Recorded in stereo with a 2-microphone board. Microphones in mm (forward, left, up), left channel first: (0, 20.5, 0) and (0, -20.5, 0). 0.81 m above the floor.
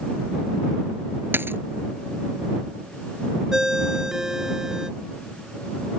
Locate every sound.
1.3 s a dropped coin: 65° right (ahead or behind)
3.5 s a ringtone: 15° right (ahead or behind)